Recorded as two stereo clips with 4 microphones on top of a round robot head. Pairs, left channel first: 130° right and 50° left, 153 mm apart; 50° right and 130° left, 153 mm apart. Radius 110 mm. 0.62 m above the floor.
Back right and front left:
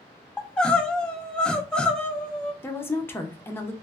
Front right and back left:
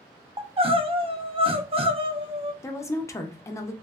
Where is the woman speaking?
80° right, 0.6 m.